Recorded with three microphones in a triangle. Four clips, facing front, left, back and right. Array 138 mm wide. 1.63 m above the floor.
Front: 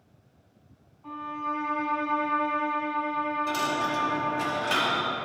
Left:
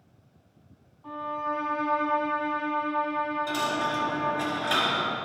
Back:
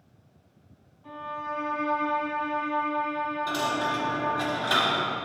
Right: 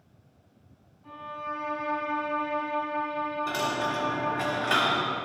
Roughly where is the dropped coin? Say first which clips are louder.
Left 1 dB, even; right.